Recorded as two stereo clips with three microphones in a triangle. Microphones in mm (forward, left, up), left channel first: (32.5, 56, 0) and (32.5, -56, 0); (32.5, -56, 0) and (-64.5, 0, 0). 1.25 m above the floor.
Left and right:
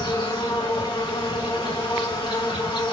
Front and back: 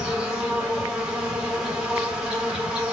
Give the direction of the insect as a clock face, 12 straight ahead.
10 o'clock.